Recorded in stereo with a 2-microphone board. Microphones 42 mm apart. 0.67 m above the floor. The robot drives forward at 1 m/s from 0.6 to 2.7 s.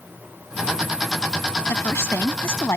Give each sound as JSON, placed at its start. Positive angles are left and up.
{"t": 1.7, "sound": "a woman speaking", "side_deg": 70}